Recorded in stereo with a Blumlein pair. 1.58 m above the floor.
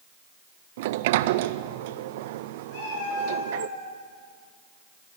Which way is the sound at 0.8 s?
50° right.